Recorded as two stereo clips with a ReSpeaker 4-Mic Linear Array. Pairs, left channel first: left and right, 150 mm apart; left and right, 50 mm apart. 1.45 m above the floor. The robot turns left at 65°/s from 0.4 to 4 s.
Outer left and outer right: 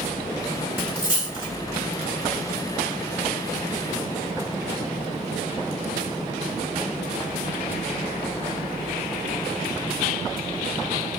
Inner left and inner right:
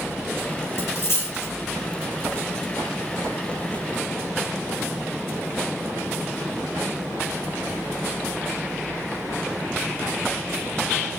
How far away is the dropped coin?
About 2.5 m.